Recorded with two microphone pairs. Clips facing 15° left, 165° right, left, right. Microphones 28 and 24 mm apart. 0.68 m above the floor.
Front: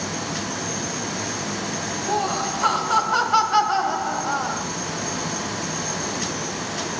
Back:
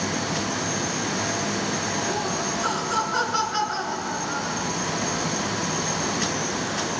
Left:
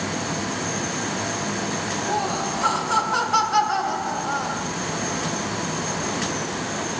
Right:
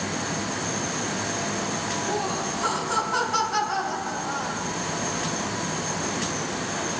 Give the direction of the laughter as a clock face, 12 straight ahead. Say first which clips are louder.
Front 3 dB, left 3 dB; 12 o'clock.